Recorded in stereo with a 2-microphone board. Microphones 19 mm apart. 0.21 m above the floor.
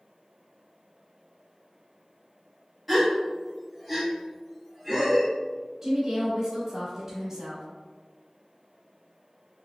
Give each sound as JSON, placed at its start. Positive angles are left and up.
{"t": 2.9, "sound": "a gasp", "side_deg": -5, "distance_m": 1.0}
{"t": 5.8, "sound": "a woman speaking", "side_deg": -20, "distance_m": 1.0}